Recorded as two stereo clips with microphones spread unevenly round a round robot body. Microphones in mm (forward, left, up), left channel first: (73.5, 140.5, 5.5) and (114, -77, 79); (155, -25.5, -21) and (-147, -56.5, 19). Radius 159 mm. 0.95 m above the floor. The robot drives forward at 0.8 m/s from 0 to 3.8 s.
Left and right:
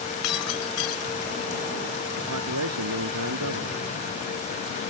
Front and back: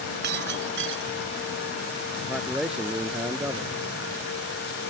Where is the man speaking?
85° right; by 3.8 s 90° right.